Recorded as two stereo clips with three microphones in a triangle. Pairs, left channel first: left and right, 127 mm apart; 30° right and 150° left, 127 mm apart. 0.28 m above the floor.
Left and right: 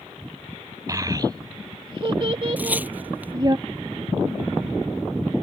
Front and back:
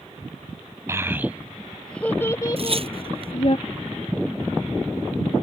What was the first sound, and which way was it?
A child speaking, 145° right.